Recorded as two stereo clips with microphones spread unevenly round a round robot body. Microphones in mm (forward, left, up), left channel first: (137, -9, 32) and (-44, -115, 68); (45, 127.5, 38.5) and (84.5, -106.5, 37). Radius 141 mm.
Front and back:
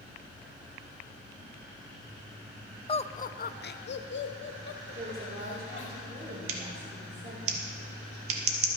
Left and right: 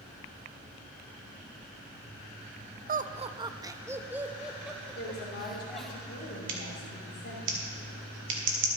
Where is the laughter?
30° right, 0.6 m; by 6.0 s 10° left, 2 m.